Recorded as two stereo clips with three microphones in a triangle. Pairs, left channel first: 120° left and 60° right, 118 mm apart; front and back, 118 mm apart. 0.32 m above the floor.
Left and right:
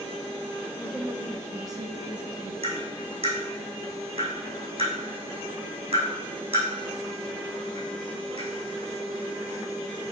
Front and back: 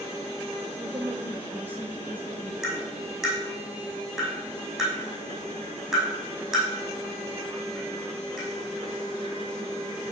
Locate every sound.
0.8 s a woman speaking: 170° right, 1.0 m; by 2.5 s 100° right, 3 m
2.6 s tapping: 95° right, 5 m